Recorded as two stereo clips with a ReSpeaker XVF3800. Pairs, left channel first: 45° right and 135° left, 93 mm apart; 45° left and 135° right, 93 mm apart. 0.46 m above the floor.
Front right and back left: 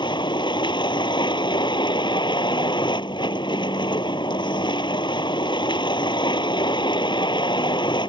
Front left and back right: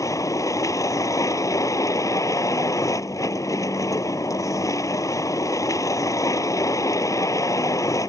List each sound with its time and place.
0.0 s a vehicle: 10° right